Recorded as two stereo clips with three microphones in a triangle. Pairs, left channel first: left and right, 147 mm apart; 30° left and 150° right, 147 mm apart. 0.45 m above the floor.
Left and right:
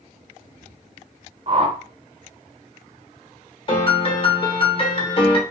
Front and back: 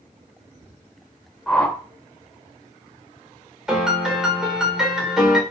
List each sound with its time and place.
1.5 s a whoosh: 55° right, 0.6 m
3.7 s a piano: 125° left, 1.0 m